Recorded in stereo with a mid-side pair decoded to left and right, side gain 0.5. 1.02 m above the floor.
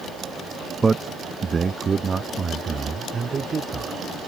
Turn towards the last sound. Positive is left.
turn(degrees=-40)